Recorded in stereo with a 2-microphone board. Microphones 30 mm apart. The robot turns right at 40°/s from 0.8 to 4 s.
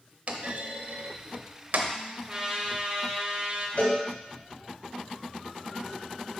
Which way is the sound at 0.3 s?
50° right (ahead or behind).